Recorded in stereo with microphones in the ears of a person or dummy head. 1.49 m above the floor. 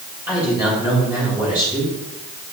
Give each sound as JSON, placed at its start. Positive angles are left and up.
{"t": 0.3, "sound": "a man speaking", "side_deg": -15, "distance_m": 3.5}